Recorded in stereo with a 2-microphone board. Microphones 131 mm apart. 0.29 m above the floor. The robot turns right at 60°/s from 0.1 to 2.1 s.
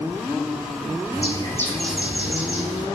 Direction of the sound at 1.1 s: 135° left.